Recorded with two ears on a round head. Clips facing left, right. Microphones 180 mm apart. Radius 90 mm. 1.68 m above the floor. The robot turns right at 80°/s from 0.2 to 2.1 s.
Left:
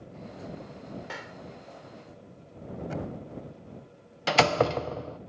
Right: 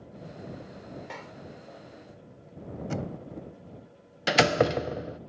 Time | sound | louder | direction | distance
1.1 | a clap | left 1 dB | 5° left (ahead or behind) | ?
2.9 | knocking | right 2 dB | 65° right (ahead or behind) | ?
4.3 | a door slam | right 1 dB | 20° right (ahead or behind) | ?